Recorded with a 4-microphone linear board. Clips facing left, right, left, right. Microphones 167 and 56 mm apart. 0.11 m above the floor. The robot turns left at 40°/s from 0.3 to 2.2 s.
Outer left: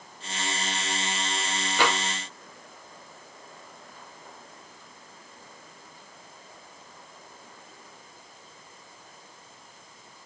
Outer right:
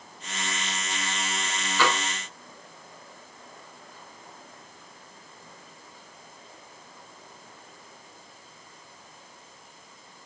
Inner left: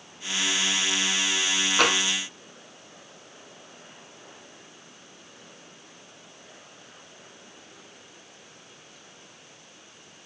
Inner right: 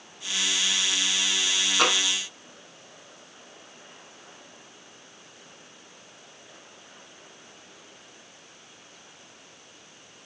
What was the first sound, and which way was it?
Tapping, 60° left (ahead or behind).